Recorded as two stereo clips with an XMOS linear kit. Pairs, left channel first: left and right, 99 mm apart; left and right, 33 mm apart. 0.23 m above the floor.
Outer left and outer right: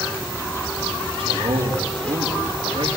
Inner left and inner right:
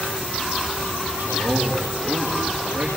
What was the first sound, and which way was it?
A man speaking, 70° right (ahead or behind).